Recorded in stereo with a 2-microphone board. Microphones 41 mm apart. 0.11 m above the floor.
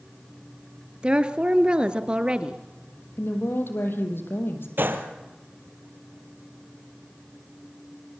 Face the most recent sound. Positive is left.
turn(degrees=-60)  # may be behind; listen again after turning